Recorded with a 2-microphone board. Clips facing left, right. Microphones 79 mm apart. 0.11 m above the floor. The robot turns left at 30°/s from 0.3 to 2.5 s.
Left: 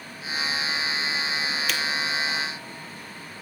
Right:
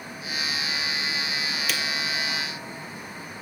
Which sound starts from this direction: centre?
A camera shutter, at 1.7 s.